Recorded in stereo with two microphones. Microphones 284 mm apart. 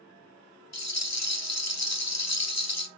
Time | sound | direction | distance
0.7 | a rattle | 60° left (ahead or behind) | 0.6 m